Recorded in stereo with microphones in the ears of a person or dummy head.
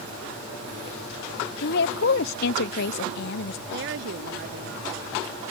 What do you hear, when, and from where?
1.6 s a woman speaking: 65° left (ahead or behind)
3.7 s a woman speaking: 60° right (ahead or behind)